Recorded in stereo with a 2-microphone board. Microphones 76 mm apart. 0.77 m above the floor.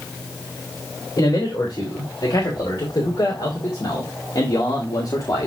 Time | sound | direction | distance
1.2 | a man speaking | 60° left (ahead or behind) | 3.5 m